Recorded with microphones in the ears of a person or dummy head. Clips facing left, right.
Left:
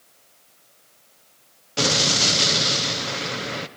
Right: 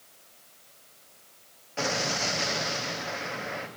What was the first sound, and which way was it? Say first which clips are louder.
An explosion: left 6 dB; 55° left (ahead or behind).